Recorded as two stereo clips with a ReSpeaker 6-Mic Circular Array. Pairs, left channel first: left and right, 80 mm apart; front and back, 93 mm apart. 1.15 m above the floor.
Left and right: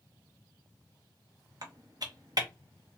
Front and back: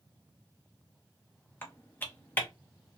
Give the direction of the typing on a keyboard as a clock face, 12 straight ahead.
2 o'clock.